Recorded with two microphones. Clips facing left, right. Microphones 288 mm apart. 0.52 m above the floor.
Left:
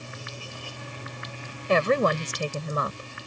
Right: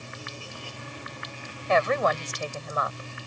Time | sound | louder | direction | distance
1.7 | a woman speaking | left 2 dB | 40° left (ahead or behind) | ?